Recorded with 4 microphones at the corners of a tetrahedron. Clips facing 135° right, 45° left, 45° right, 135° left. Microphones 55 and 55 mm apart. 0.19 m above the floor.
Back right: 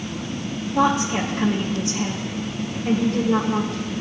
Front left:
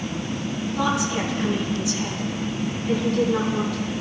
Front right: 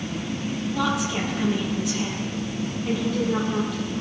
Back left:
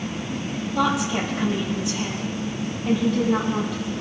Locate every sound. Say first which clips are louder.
0.8 s a woman speaking: back right 5 dB, back left 4 dB; 140° right, 4 m